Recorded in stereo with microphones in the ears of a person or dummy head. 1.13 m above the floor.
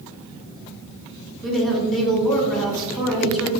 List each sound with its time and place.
1.4 s a woman speaking: 5° left (ahead or behind), 1.2 m